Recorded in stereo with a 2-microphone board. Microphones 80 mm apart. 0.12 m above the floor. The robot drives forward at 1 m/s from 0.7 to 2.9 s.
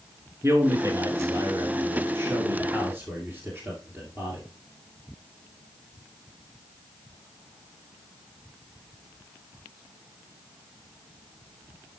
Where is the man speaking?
35° right (ahead or behind), 1.5 m; by 4.4 s 25° right (ahead or behind), 2 m.